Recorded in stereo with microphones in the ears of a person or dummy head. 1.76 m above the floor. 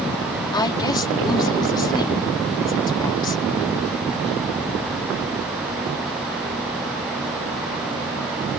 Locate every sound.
0.5 s a woman speaking: 25° left (ahead or behind)